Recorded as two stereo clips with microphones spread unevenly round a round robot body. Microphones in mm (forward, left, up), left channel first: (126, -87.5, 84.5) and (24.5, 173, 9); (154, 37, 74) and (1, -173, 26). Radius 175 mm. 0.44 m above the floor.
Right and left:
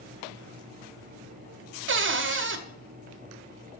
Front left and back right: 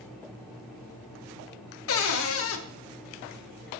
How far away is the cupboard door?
About 1.3 m.